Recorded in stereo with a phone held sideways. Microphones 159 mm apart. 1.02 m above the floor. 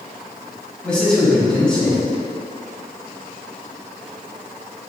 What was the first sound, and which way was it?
A man speaking, 5° left (ahead or behind).